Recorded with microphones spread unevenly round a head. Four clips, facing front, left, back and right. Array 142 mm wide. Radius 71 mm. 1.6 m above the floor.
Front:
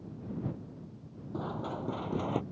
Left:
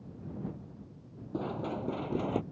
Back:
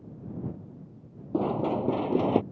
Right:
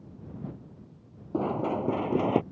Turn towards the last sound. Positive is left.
turn(degrees=-135)